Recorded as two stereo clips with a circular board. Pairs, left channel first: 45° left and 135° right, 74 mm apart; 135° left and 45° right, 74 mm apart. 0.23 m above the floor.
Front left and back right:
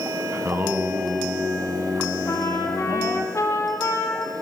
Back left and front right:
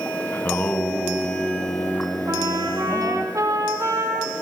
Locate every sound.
0.3 s singing: straight behind, 1.7 m
2.3 s a trumpet: 5° right, 3.5 m